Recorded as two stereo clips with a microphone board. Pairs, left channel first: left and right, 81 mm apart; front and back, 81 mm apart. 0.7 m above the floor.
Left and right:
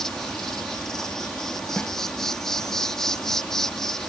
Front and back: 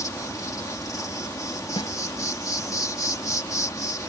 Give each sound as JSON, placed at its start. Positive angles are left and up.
{"t": 0.0, "sound": "an insect", "azimuth_deg": 10}
{"t": 1.8, "sound": "a snare drum", "azimuth_deg": 15}